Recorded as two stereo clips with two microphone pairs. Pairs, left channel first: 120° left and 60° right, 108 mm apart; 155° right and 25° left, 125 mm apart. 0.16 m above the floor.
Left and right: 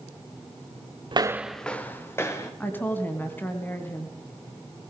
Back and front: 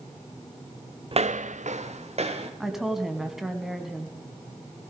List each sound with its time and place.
1.1 s footsteps: 20° right, 0.5 m; by 2.5 s 60° left, 2.5 m
2.6 s a woman speaking: 105° left, 1.3 m